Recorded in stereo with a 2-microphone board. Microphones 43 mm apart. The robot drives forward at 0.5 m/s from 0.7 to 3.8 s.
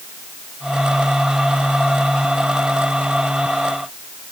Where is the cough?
No cough in this recording.